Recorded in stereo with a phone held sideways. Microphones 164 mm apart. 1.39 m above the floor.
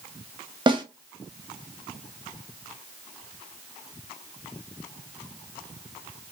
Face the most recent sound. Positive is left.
turn(degrees=-30)  # may be behind; listen again after turning